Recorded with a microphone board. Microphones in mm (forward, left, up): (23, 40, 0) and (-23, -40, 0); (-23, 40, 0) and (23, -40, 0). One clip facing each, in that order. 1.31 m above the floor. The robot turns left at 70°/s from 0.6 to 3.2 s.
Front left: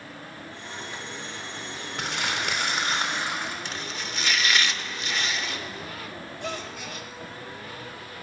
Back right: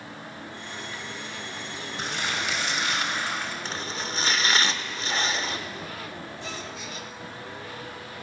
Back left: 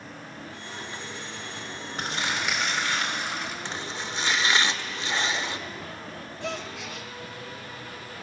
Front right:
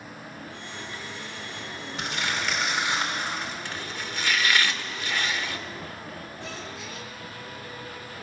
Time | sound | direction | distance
2.0 | crumpling | 75° left | 4 m
3.6 | chopping | 175° right | 0.9 m
6.4 | a gasp | 95° left | 1.2 m